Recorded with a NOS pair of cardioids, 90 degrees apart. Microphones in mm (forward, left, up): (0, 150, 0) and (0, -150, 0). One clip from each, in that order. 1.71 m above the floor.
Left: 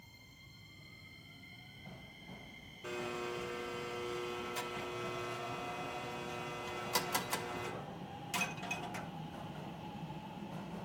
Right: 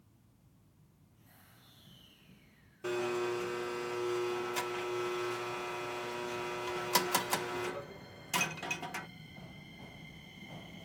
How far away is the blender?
About 0.7 m.